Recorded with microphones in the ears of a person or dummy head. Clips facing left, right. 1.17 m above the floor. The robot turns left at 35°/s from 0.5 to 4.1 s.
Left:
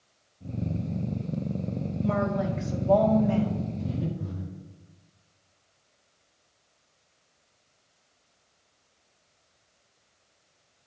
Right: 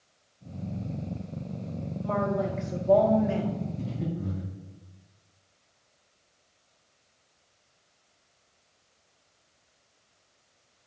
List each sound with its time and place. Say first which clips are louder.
2.0 s a woman speaking: left 1 dB; 30° left, 2 m; by 3.6 s 25° right, 2 m
3.8 s breathing: left 1 dB; 70° right (ahead or behind), 2.5 m; by 4.4 s 60° right (ahead or behind), 2.5 m